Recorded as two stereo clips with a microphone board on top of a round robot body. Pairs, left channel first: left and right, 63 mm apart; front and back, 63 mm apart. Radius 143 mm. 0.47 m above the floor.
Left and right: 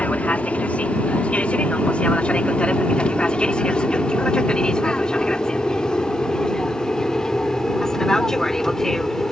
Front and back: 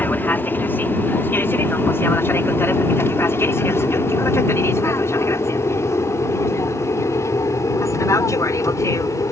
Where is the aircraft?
35° left; by 9.3 s 10° left.